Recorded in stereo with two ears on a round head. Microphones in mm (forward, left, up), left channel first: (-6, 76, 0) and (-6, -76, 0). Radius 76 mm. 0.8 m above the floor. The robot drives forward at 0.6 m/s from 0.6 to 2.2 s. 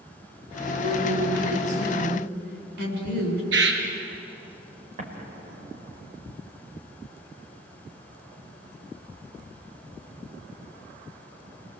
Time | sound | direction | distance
0.7 | a woman speaking | 60° right (ahead or behind) | 7.5 m
3.5 | a bird | 80° right | 3.5 m
5.0 | an explosion | 50° right (ahead or behind) | 4 m